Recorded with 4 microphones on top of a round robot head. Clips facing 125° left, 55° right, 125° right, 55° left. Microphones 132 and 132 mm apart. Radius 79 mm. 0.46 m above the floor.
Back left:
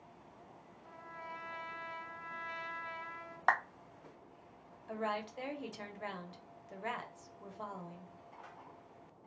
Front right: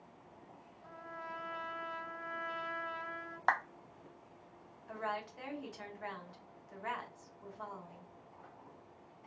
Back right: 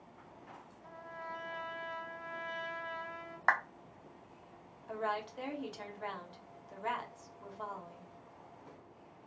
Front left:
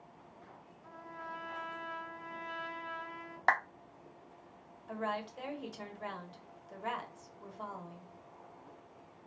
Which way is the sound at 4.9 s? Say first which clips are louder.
Back left 2 dB, back right 1 dB; 140° left.